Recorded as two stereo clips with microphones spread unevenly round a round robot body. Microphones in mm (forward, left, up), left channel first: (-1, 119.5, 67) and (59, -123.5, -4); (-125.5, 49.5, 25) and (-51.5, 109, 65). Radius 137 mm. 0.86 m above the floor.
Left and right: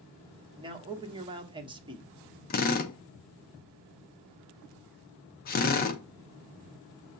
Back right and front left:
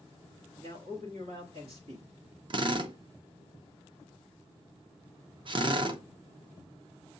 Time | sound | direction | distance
0.6 | a man speaking | 10° right | 1.0 m
2.5 | a drill | 60° left | 0.7 m